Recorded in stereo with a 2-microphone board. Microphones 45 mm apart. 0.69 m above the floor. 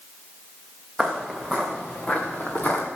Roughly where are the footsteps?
Centre.